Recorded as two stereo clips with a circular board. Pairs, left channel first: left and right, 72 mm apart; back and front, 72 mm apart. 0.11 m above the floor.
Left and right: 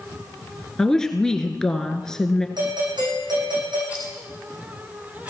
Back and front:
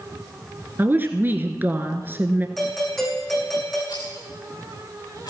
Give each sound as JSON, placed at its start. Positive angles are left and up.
{"t": 0.8, "sound": "a woman speaking", "azimuth_deg": 15, "distance_m": 1.5}
{"t": 2.6, "sound": "a doorbell", "azimuth_deg": -90, "distance_m": 7.5}
{"t": 3.9, "sound": "a rattle", "azimuth_deg": -160, "distance_m": 4.0}